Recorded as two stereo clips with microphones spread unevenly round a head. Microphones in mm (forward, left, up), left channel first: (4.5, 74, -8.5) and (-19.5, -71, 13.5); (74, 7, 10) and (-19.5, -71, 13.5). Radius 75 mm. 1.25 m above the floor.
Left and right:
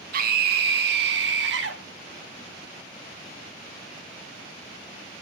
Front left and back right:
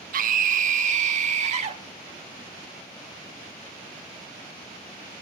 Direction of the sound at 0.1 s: 130° right.